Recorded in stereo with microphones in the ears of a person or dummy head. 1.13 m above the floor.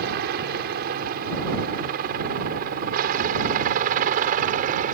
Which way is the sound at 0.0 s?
55° right (ahead or behind).